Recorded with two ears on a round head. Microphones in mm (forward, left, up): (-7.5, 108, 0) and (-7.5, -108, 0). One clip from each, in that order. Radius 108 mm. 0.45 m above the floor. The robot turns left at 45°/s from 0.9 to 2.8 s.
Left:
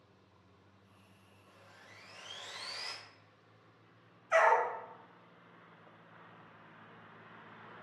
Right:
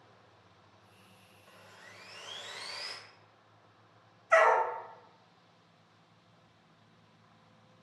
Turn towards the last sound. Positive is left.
turn(degrees=-25)  # may be behind; listen again after turning